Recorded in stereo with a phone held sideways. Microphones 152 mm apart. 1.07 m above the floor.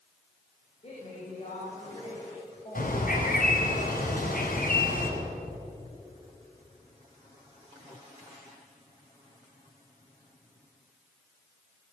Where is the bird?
70° left (ahead or behind), 5 m.